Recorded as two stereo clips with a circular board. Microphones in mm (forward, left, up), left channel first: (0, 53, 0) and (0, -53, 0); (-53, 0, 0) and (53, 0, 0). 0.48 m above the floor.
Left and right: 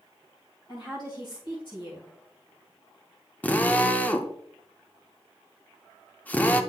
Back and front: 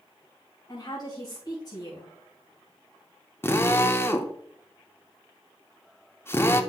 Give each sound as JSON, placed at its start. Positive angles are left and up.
{"t": 0.7, "sound": "a woman speaking", "azimuth_deg": 130, "distance_m": 2.5}
{"t": 3.4, "sound": "a drill", "azimuth_deg": 145, "distance_m": 0.6}